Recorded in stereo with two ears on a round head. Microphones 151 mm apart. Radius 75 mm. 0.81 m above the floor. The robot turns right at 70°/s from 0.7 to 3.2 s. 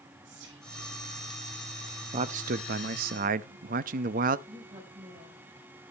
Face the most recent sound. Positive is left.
turn(degrees=-25)  # may be behind; listen again after turning